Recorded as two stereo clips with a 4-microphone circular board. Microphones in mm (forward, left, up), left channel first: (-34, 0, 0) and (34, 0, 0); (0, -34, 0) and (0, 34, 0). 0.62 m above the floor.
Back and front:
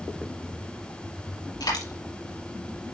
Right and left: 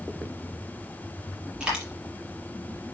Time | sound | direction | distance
1.6 | a dropped coin | 170° left | 6 m